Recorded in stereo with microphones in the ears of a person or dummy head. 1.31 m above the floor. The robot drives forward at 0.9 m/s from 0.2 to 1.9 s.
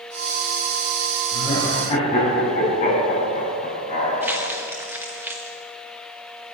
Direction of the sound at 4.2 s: 15° right (ahead or behind).